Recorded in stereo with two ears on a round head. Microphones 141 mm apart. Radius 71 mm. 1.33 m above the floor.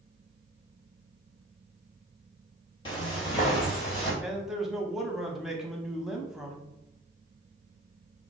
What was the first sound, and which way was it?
Footsteps, 30° left (ahead or behind).